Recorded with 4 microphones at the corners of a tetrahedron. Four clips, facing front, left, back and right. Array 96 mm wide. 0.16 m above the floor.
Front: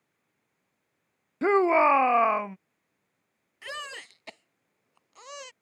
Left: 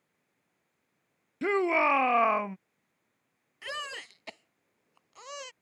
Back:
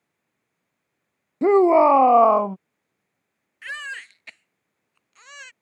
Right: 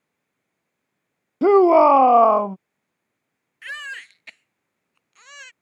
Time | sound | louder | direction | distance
1.4 | a shout | right 14 dB, back 6 dB | 115° right | ?
3.6 | a baby crying | right 5 dB, back 6 dB | 45° left | ?